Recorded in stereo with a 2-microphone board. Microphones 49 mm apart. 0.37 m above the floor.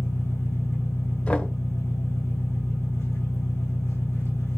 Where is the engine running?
85° left, 6 m.